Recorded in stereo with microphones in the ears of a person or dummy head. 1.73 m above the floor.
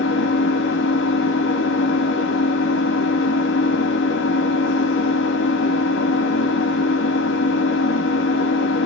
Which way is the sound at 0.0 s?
70° left (ahead or behind).